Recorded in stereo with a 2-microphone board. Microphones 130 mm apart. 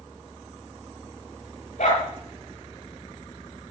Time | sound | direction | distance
1.8 | a dog barking | 80° left | 5 m